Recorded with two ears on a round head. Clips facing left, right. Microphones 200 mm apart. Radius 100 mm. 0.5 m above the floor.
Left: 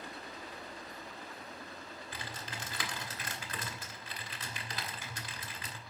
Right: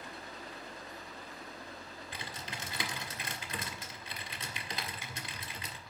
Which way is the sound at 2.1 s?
20° right (ahead or behind).